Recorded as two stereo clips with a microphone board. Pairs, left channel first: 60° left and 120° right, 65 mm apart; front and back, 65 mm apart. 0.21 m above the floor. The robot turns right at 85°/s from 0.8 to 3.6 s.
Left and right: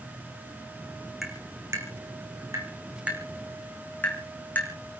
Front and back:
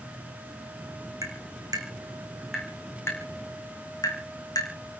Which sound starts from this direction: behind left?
Tapping, at 1.2 s.